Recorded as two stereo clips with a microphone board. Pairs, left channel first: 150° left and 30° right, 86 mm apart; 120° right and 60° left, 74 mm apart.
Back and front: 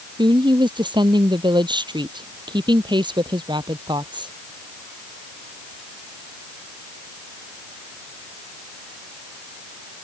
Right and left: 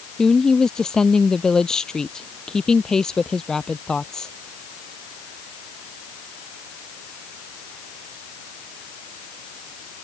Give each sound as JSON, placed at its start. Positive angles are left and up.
{"t": 0.2, "sound": "a woman speaking", "azimuth_deg": -40}